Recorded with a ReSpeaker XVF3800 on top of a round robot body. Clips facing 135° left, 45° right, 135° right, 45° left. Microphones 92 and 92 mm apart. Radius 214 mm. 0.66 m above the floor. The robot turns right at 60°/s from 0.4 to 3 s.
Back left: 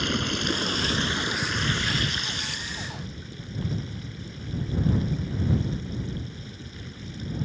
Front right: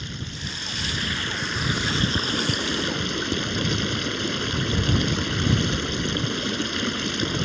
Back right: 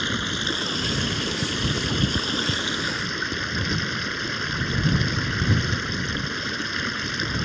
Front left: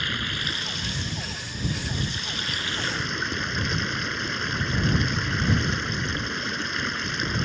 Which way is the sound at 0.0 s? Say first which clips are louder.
Back left 8 dB, back right 3 dB; 160° left.